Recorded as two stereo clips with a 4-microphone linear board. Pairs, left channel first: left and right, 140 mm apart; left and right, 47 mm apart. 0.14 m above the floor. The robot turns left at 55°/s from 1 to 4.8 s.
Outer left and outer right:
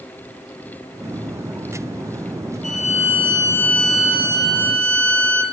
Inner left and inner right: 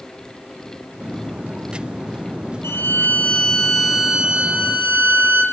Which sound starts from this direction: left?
A violin, at 2.6 s.